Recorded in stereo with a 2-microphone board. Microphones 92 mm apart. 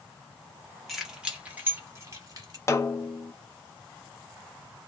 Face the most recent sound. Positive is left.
turn(degrees=30)  # may be behind; listen again after turning